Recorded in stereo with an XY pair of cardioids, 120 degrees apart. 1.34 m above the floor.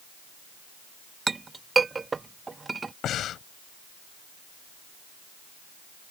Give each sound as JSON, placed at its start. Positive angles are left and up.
{"t": 1.3, "sound": "a clink", "azimuth_deg": -20}
{"t": 3.0, "sound": "breathing", "azimuth_deg": 60}